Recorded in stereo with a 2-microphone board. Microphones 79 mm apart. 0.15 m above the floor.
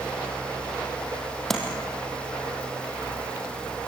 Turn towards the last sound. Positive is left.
turn(degrees=5)  # may be behind; listen again after turning